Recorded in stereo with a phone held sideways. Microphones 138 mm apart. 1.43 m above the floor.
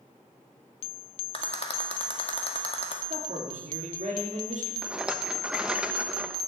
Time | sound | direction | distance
1.3 | a rattle | 45° left (ahead or behind) | 1.8 m
3.1 | a man speaking | 55° right (ahead or behind) | 4 m
4.8 | a rattle | 5° right (ahead or behind) | 0.8 m